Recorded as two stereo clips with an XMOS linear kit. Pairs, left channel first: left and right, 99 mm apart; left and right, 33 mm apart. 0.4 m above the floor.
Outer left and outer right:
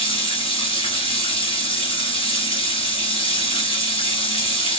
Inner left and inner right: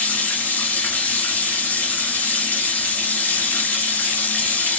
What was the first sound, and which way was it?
Running water, 70° left (ahead or behind).